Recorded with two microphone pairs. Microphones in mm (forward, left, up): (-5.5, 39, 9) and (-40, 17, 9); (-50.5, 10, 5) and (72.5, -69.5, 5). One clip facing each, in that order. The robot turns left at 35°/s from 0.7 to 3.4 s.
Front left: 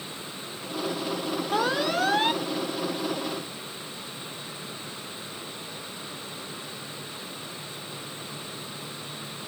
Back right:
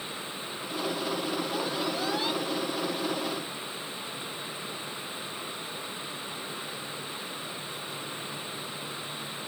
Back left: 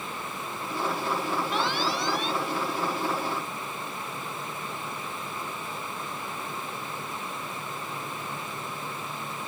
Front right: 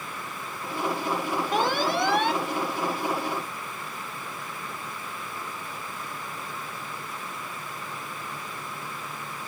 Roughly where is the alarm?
Ahead.